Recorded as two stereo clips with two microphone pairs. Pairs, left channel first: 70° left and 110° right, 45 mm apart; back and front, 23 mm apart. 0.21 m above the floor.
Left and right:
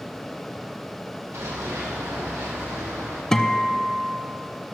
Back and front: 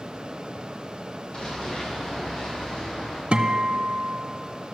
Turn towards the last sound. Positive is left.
turn(degrees=-10)